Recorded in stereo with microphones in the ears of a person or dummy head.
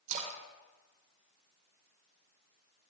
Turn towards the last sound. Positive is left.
turn(degrees=-45)  # may be behind; listen again after turning